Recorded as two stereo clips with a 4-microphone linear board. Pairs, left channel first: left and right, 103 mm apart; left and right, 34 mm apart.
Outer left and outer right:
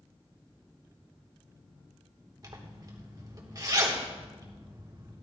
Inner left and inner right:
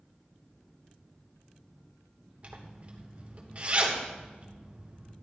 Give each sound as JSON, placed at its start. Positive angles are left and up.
{"t": 2.4, "sound": "a zipper", "side_deg": -40, "distance_m": 1.5}